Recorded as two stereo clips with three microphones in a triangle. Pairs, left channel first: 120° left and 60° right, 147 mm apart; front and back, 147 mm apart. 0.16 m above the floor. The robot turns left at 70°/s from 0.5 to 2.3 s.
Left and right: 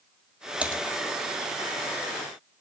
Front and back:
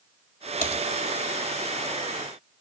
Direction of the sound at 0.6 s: 20° left.